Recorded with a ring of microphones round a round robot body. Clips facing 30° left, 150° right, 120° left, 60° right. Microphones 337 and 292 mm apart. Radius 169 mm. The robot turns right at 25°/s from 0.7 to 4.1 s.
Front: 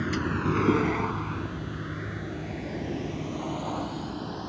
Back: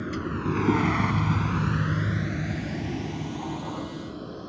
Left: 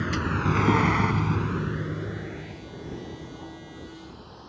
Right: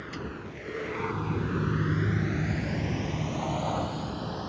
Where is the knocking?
I don't hear knocking.